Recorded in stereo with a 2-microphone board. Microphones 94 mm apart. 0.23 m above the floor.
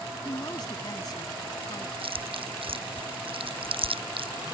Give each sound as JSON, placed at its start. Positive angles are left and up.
{"t": 0.2, "sound": "a woman speaking", "side_deg": 45}
{"t": 2.0, "sound": "chewing", "side_deg": -70}